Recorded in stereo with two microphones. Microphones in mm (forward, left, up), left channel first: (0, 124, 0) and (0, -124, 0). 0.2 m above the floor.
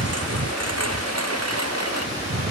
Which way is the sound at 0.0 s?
80° right.